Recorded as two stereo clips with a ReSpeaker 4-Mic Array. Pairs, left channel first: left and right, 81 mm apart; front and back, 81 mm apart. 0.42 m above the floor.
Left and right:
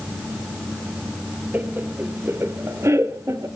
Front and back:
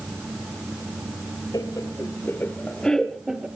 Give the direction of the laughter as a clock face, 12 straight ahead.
1 o'clock.